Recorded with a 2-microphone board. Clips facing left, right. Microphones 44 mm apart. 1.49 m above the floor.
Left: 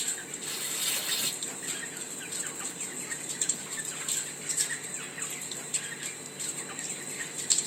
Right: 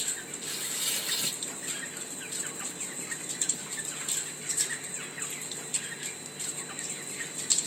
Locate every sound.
0.4 s tearing paper: 30° left (ahead or behind), 3.5 m